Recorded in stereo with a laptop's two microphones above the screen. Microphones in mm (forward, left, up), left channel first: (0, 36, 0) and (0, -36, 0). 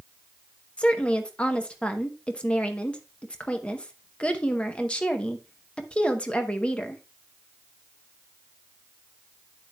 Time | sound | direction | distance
0.8 | a woman speaking | 15° left (ahead or behind) | 0.8 m